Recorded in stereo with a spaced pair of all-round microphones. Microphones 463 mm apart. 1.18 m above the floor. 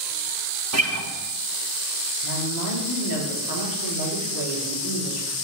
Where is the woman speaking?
50° right (ahead or behind), 3 m.